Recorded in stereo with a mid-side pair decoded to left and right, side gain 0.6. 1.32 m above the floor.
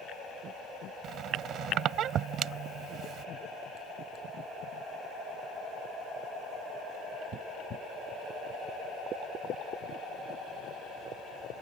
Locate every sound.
1.0 s a squeak: 55° right